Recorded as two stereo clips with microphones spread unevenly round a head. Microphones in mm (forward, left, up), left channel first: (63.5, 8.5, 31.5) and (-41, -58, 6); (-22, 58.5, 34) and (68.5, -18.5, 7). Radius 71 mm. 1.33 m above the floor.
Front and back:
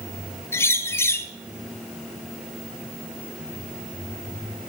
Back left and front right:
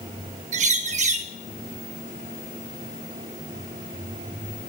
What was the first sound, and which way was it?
A bird, 40° right.